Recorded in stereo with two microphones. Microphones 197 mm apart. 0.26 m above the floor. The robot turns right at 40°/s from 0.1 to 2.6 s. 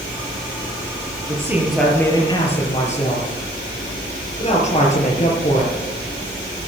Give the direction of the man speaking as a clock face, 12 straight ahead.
1 o'clock.